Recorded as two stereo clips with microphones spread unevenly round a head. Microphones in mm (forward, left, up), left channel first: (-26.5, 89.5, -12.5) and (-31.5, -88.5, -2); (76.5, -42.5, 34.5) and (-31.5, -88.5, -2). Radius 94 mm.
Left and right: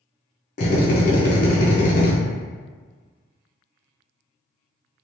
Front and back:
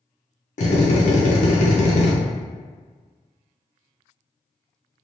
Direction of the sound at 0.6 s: 55° left.